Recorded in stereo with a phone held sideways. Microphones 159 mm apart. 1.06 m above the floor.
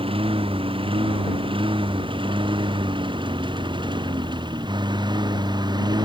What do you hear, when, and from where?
0.0 s a lawn mower: 35° right (ahead or behind); by 6.0 s 25° right (ahead or behind)